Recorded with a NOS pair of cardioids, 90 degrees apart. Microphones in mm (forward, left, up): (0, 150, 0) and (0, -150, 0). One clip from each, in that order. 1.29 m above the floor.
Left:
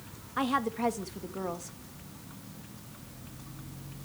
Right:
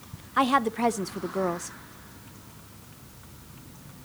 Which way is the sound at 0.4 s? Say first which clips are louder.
Right 7 dB; 30° right.